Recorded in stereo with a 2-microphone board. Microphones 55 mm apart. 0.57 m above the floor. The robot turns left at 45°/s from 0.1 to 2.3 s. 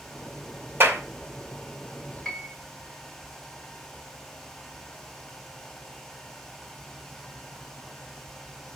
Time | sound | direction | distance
0.8 | a clap | 50° right (ahead or behind) | 2 m
2.2 | a piano | 10° left (ahead or behind) | 1.8 m